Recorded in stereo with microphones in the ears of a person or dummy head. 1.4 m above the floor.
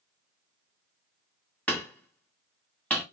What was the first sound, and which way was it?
Hammering, 5° left (ahead or behind).